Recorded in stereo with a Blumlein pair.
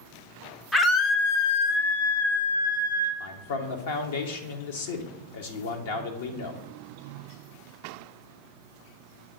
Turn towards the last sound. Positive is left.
turn(degrees=55)